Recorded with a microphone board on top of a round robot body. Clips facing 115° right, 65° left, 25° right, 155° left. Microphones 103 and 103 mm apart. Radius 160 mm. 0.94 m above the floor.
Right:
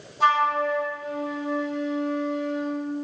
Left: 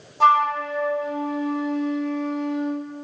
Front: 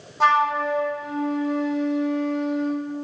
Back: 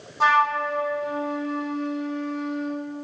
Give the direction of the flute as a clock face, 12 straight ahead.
10 o'clock.